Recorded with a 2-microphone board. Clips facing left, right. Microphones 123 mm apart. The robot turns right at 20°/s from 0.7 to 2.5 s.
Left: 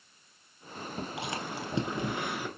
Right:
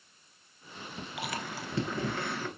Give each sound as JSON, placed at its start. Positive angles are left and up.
{"t": 1.2, "sound": "chewing", "side_deg": 30, "distance_m": 0.9}